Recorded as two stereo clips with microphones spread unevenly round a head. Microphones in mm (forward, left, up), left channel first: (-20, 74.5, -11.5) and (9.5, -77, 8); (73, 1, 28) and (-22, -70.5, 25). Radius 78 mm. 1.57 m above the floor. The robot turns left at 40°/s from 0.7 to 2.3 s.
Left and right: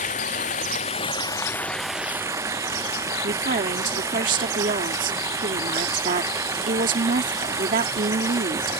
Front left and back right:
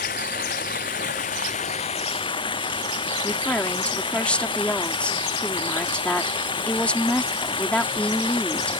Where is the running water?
55° left; by 8.8 s 5° right.